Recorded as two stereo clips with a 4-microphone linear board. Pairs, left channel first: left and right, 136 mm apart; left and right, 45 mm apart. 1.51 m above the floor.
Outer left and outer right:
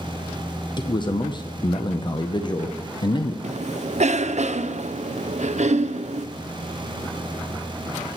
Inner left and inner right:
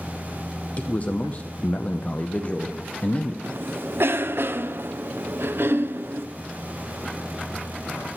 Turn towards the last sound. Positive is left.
turn(degrees=-60)  # may be behind; listen again after turning